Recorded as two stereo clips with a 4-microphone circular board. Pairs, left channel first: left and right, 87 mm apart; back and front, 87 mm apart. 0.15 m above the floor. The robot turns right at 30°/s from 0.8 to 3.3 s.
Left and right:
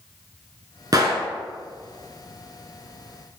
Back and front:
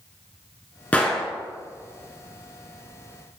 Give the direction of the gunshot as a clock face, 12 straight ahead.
4 o'clock.